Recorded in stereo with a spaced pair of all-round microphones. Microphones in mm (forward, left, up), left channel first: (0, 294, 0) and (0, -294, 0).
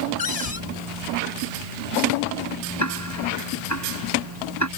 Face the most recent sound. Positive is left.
turn(degrees=25)  # may be behind; listen again after turning